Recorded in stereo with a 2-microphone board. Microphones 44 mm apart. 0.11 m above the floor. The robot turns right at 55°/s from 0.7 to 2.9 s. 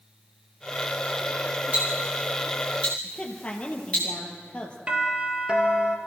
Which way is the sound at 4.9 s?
25° right (ahead or behind).